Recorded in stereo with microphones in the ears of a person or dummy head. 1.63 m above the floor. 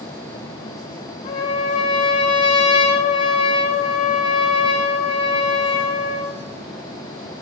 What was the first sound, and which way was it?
A trumpet, 35° left (ahead or behind).